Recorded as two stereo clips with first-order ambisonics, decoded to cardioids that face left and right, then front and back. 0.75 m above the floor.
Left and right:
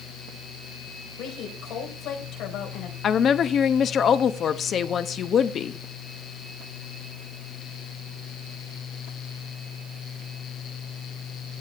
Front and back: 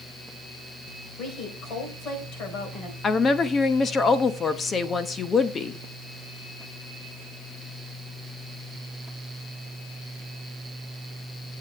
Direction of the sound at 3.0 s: 55° left.